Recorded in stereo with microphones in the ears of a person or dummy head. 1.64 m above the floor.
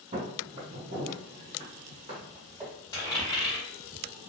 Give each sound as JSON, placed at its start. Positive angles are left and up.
{"t": 0.1, "sound": "footsteps", "side_deg": -35, "distance_m": 1.9}
{"t": 2.9, "sound": "a dropped coin", "side_deg": 25, "distance_m": 1.8}